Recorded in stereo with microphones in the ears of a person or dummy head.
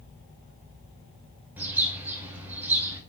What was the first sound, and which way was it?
A bird, 15° right (ahead or behind).